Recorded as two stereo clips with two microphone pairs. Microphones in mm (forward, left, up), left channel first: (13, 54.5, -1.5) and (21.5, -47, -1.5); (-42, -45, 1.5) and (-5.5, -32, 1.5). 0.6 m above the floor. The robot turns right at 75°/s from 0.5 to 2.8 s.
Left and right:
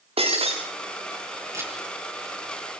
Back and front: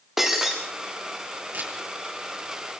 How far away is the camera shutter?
About 8 m.